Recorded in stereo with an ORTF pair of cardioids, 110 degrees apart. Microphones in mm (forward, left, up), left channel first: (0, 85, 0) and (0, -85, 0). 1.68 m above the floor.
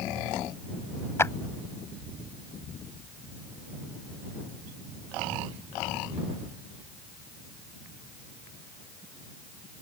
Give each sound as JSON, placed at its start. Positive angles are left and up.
{"t": 1.2, "sound": "a clap", "azimuth_deg": 15}